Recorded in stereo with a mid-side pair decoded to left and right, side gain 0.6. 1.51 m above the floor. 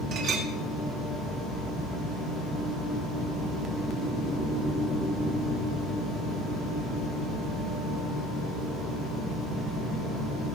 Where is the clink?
55° right, 2.5 m.